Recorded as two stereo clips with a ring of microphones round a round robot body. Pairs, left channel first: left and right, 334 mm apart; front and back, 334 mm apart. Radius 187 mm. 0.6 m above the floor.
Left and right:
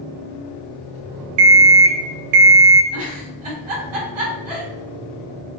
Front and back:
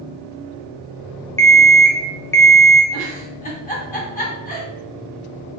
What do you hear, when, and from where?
1.4 s an alarm clock: 85° right, 0.6 m
2.9 s a giggle: 65° right, 1.6 m